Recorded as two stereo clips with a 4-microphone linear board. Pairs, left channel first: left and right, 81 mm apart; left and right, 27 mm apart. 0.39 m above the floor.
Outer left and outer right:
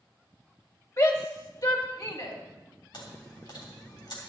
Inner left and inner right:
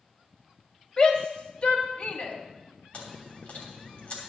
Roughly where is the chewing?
Left.